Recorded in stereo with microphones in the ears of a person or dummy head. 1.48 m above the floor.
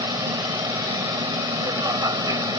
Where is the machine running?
20° right (ahead or behind).